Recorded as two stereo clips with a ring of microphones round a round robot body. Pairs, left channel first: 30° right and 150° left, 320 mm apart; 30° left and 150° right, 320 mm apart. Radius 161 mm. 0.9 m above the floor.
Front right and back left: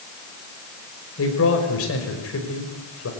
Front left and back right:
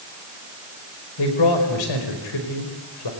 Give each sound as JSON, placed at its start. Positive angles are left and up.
{"t": 1.2, "sound": "a man speaking", "azimuth_deg": 20, "distance_m": 4.5}